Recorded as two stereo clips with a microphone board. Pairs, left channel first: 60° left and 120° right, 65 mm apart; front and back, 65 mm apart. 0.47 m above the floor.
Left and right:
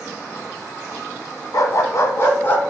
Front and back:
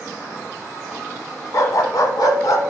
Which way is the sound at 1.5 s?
30° left.